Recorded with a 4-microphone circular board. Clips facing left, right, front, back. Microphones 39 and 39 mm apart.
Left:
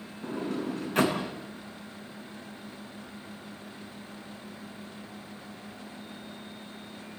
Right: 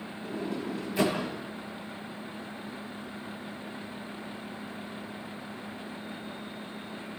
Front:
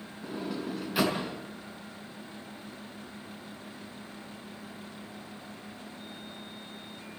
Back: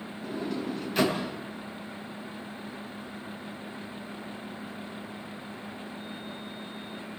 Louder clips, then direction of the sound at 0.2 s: Left 2 dB, back 2 dB; 85° left.